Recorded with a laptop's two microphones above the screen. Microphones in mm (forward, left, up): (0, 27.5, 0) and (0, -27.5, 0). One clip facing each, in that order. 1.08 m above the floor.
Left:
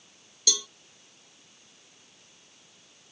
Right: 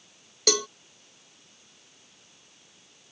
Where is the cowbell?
55° right (ahead or behind).